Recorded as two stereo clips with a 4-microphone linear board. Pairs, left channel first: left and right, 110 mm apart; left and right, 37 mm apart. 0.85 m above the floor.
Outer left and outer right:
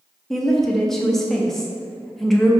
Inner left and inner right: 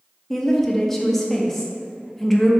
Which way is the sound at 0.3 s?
5° left (ahead or behind).